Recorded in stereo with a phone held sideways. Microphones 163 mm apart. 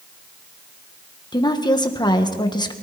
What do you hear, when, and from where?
1.3 s a woman speaking: 25° left (ahead or behind), 1.5 m